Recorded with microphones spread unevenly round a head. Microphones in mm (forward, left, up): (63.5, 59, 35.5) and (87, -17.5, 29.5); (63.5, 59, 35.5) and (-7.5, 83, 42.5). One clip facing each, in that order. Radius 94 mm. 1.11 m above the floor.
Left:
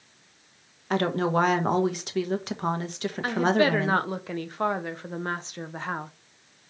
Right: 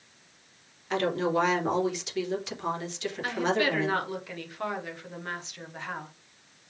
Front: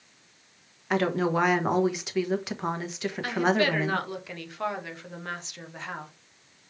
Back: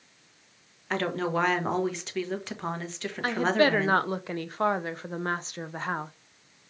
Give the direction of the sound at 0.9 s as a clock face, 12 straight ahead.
10 o'clock.